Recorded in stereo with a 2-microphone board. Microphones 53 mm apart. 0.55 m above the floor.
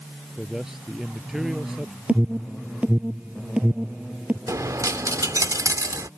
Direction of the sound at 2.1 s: 25° right (ahead or behind).